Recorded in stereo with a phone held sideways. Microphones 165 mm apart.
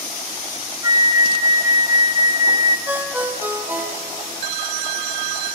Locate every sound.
0.8 s a flute: 25° right (ahead or behind), 0.6 m
2.9 s a ringtone: 10° right (ahead or behind), 1.7 m